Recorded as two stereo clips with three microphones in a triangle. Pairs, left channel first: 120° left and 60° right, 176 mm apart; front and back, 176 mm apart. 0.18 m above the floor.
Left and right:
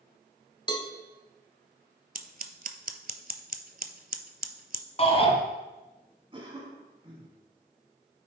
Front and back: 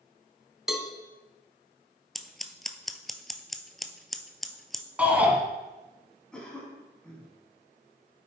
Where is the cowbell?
95° left, 0.8 m.